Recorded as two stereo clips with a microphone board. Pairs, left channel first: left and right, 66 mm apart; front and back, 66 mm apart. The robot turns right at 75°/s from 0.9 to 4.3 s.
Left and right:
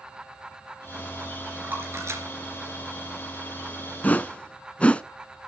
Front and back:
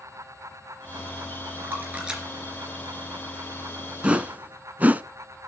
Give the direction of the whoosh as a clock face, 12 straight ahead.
8 o'clock.